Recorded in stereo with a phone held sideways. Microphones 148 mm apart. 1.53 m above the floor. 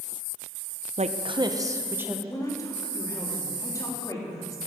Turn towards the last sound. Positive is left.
turn(degrees=20)  # may be behind; listen again after turning